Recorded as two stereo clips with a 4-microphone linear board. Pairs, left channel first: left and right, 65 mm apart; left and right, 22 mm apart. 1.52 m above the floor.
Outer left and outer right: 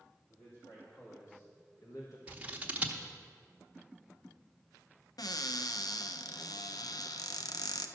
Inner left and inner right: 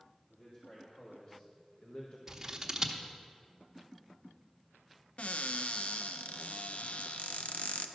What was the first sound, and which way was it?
A man speaking, 50° left (ahead or behind).